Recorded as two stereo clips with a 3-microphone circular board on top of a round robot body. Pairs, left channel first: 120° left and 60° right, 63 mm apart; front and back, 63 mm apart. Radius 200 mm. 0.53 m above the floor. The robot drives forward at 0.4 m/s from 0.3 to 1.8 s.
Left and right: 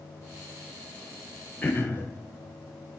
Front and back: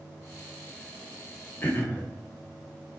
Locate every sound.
1.6 s throat clearing: 60° left, 1.1 m